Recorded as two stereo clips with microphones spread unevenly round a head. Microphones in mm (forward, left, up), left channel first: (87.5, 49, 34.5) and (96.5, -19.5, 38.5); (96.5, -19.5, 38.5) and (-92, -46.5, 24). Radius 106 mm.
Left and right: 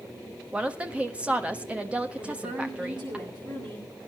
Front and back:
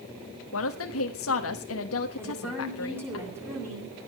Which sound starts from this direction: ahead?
A woman speaking, at 0.5 s.